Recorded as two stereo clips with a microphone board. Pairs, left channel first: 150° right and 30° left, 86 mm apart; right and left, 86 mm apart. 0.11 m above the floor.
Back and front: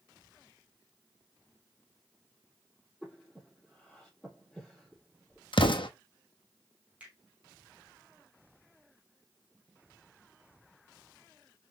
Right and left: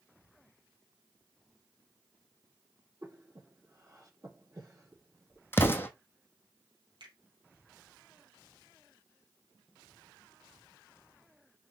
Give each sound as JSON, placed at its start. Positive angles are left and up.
{"t": 3.0, "sound": "breathing", "azimuth_deg": 125, "distance_m": 4.0}
{"t": 5.5, "sound": "an explosion", "azimuth_deg": -155, "distance_m": 1.1}
{"t": 7.0, "sound": "a finger snap", "azimuth_deg": 100, "distance_m": 3.0}